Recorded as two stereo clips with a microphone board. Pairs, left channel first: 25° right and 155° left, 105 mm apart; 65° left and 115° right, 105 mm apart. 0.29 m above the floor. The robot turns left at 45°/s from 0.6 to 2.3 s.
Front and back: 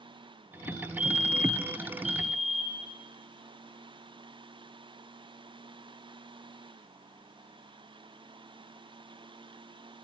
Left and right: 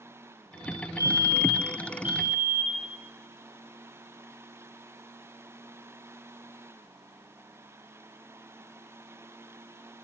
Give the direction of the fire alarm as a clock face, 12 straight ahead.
12 o'clock.